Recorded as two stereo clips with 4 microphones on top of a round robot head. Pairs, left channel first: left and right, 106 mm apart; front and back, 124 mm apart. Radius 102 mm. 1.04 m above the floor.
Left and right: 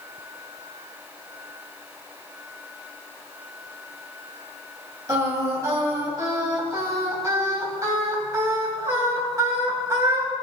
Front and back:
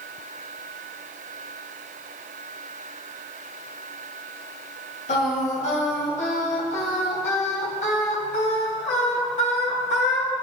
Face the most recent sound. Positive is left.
turn(degrees=-30)